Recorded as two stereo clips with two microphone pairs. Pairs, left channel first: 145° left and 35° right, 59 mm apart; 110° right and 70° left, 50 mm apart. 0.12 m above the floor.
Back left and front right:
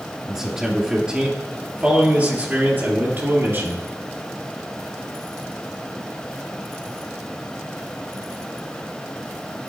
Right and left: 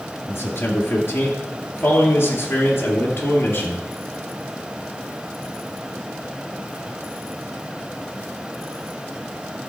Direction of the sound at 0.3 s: 120° right.